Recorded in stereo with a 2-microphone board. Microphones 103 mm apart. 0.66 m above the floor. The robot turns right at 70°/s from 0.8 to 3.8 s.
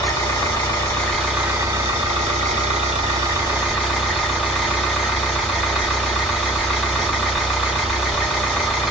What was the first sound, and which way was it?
An engine running, 150° left.